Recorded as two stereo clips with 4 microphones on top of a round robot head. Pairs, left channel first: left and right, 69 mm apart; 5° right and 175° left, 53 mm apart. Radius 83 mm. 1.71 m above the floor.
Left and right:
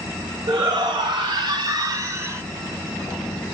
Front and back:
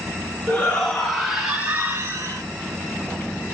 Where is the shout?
75° right, 2.5 m; by 2.4 s 145° right, 1.9 m.